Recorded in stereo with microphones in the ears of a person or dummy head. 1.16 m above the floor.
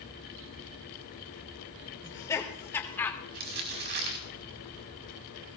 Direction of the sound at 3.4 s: 55° right (ahead or behind).